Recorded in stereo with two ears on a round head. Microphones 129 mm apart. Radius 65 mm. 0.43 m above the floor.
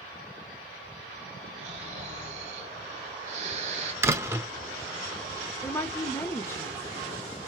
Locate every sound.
1.6 s snoring: 45° right (ahead or behind), 1.9 m
4.0 s a door slam: 20° right (ahead or behind), 0.7 m
5.6 s a woman speaking: 15° left (ahead or behind), 0.8 m